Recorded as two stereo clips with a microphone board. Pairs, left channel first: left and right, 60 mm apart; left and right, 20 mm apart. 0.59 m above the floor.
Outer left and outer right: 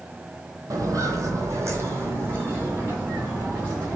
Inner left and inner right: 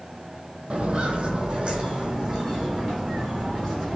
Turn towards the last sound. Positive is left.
turn(degrees=-25)  # may be behind; listen again after turning